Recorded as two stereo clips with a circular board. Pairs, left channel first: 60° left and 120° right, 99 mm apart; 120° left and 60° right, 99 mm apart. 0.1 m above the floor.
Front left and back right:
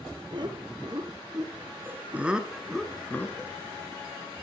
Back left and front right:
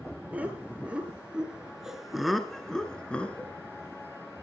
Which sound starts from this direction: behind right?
Laughter, at 0.3 s.